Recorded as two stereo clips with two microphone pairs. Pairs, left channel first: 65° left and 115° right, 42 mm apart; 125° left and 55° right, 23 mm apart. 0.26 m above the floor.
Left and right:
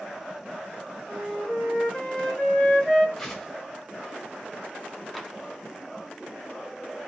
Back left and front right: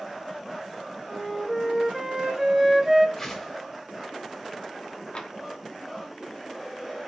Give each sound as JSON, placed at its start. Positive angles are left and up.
{"t": 1.1, "sound": "a flute", "azimuth_deg": 40, "distance_m": 1.5}
{"t": 3.2, "sound": "a whoosh", "azimuth_deg": 140, "distance_m": 0.9}
{"t": 5.2, "sound": "tapping", "azimuth_deg": 150, "distance_m": 0.6}